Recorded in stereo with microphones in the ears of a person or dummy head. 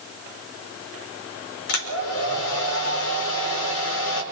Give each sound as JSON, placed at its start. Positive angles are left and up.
{"t": 1.7, "sound": "a hair dryer", "side_deg": 85, "distance_m": 4.5}